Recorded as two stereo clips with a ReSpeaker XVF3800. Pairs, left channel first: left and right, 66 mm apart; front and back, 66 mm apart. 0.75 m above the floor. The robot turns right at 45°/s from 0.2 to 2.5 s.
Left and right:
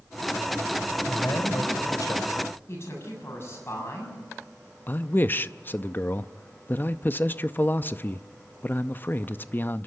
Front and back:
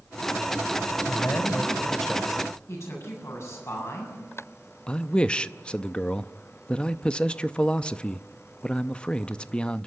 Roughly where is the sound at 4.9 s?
Ahead left.